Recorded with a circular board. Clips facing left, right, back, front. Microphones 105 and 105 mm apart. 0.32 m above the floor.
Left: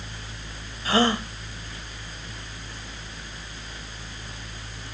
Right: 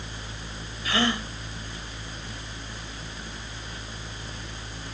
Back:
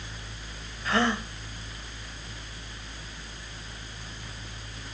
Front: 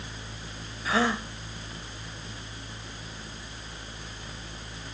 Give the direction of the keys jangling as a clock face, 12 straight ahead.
No keys jangling in this recording.